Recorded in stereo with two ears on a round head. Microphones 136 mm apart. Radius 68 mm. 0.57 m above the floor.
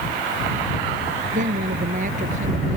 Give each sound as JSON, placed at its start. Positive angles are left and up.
{"t": 1.3, "sound": "a woman speaking", "side_deg": -55}